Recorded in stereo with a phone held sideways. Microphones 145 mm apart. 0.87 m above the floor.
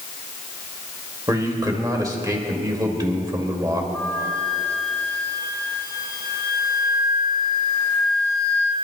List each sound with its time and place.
1.3 s a man speaking: 25° right (ahead or behind), 1.8 m
3.9 s a flute: 10° left (ahead or behind), 3 m